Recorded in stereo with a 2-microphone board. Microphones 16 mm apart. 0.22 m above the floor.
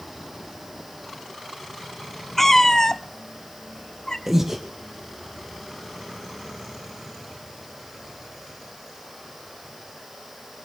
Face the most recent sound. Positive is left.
turn(degrees=-25)  # may be behind; listen again after turning